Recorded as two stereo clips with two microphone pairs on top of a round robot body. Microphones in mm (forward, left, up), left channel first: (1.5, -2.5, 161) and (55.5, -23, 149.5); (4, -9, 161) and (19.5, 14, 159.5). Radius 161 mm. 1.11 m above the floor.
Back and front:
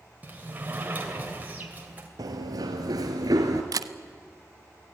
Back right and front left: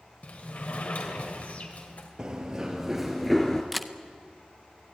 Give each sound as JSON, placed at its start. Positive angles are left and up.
{"t": 0.2, "sound": "a sliding door", "azimuth_deg": -85, "distance_m": 2.5}
{"t": 2.2, "sound": "running footsteps", "azimuth_deg": -5, "distance_m": 1.6}
{"t": 3.7, "sound": "a camera shutter", "azimuth_deg": -35, "distance_m": 0.7}